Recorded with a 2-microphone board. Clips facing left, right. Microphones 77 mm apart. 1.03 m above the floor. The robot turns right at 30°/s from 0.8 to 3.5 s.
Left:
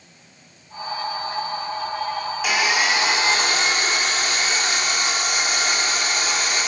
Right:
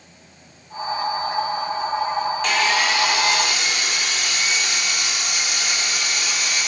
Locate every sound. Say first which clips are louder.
2.4 s sawing: left 2 dB; 5° left, 2.5 m; by 6.7 s 40° left, 2.5 m